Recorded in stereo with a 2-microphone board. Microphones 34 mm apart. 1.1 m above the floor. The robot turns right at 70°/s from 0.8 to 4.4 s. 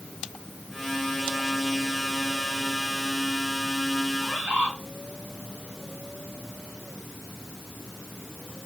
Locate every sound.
4.2 s a bird: 35° right (ahead or behind), 4.5 m; by 4.8 s 20° right (ahead or behind), 4.5 m